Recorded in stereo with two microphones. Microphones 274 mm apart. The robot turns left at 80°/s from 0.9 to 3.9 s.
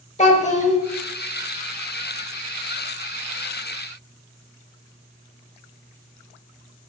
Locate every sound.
0.2 s a child speaking: 25° left (ahead or behind), 0.8 m